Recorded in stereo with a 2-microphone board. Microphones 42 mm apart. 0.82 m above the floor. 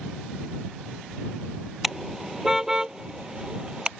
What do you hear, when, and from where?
1.8 s a car horn: 5° right (ahead or behind); by 3.9 s 20° right (ahead or behind)